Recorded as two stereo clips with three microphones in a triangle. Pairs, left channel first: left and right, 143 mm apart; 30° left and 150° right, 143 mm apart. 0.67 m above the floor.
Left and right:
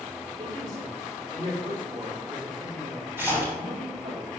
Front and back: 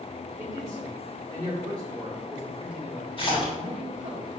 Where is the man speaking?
85° right, 3 m; by 4.2 s 115° right, 1.7 m.